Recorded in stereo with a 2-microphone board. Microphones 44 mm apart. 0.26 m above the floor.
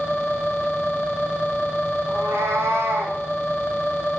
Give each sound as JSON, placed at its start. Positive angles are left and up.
{"t": 2.1, "sound": "a cat meowing", "side_deg": -65, "distance_m": 5.0}